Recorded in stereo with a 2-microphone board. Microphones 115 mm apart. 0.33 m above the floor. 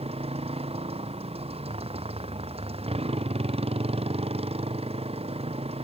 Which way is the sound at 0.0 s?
60° right (ahead or behind).